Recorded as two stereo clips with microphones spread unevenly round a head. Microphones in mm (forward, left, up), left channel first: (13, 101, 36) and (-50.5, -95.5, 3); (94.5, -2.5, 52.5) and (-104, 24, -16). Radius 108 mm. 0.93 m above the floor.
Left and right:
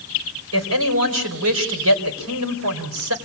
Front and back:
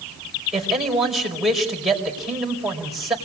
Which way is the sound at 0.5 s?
100° right.